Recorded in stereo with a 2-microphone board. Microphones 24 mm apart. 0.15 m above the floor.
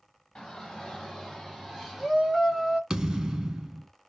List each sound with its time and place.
0.3 s a shout: 30° left (ahead or behind), 1.6 m; by 2.8 s 15° right (ahead or behind), 1.6 m
2.9 s a thud: 25° right (ahead or behind), 0.8 m